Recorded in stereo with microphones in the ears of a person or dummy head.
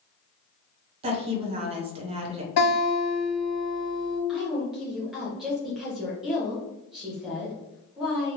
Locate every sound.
1.0 s a woman speaking: 30° right (ahead or behind), 0.8 m
2.6 s a guitar: 50° left (ahead or behind), 1.4 m
4.3 s a woman speaking: 5° right (ahead or behind), 0.9 m